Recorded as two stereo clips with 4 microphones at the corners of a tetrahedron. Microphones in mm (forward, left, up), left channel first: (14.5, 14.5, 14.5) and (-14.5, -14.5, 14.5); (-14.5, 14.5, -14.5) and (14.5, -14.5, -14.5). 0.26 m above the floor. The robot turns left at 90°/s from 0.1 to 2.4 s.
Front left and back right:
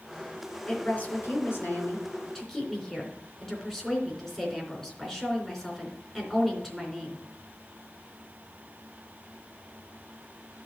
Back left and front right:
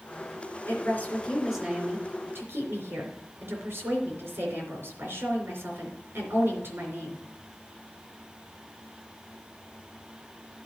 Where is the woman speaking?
120° left, 3.5 m; by 7.2 s 35° right, 3.5 m.